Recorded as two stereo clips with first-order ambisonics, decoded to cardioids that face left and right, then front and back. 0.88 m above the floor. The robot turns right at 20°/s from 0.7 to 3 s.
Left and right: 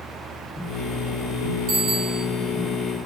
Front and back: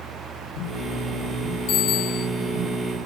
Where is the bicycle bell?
50° right, 8 m; by 2.2 s 35° right, 8 m.